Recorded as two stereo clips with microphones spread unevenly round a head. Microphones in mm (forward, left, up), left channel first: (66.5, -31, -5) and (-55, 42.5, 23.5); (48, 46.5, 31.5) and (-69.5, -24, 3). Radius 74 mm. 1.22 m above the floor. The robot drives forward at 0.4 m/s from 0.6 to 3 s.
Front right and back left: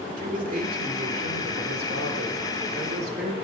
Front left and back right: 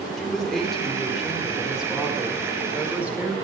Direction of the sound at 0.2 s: 115° left.